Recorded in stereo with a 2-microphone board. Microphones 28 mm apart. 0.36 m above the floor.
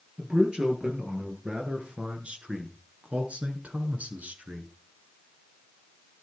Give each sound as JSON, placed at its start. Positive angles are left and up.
{"t": 0.2, "sound": "a man speaking", "side_deg": -35, "distance_m": 7.0}